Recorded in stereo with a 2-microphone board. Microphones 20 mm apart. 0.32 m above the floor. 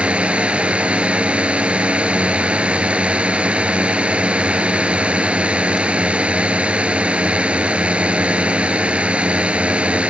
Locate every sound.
0.0 s a drone: 70° right (ahead or behind)